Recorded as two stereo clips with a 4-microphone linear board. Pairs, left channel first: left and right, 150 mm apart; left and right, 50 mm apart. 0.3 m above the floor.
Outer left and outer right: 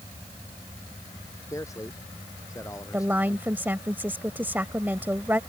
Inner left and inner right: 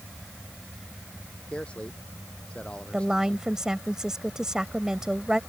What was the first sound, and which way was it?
A man speaking, 20° left (ahead or behind).